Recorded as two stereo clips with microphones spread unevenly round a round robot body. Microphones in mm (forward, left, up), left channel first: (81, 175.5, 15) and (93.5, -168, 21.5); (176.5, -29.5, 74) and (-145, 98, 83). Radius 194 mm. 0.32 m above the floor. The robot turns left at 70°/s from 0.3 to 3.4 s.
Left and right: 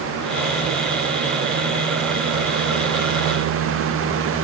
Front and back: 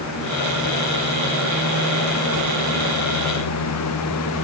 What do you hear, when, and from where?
Only background noise.